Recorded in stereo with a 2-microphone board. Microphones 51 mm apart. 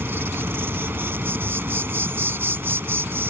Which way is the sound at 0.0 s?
50° right (ahead or behind).